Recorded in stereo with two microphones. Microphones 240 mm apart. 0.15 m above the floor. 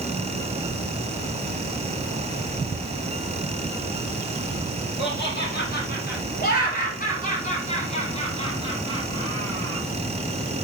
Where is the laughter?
55° left (ahead or behind), 4 m; by 9.8 s 10° left (ahead or behind), 3 m.